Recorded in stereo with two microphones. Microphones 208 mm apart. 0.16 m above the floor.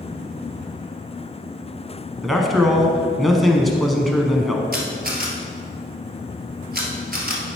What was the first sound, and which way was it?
A man speaking, centre (ahead or behind).